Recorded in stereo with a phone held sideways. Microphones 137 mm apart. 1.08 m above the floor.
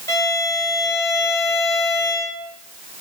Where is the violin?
25° left (ahead or behind), 4 m.